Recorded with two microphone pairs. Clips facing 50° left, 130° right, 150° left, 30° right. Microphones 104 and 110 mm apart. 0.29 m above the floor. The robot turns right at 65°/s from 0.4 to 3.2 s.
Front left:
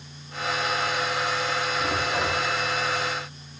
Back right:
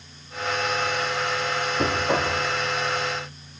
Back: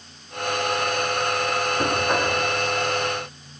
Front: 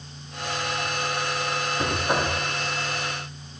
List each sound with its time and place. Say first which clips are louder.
1.8 s knocking: back right 6 dB, back 1 dB; 130° right, 7.5 m; by 2.3 s 95° right, 7.5 m